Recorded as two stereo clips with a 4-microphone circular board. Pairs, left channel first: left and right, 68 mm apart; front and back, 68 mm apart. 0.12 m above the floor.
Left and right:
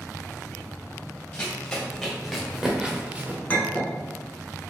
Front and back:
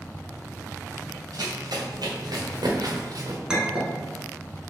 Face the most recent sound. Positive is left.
turn(degrees=115)